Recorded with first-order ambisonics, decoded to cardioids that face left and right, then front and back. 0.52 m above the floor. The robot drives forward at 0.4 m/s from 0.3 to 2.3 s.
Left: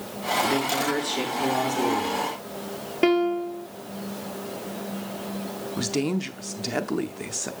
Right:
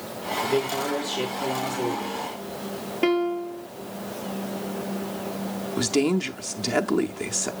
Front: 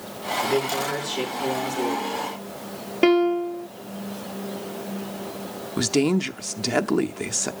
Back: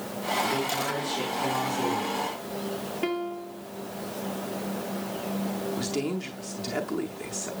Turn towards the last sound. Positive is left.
turn(degrees=-15)